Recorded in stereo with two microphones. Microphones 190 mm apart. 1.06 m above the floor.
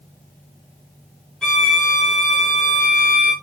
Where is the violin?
5° left (ahead or behind), 3.5 m.